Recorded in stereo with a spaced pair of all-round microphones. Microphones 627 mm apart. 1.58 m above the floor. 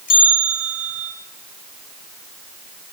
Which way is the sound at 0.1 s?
60° left (ahead or behind).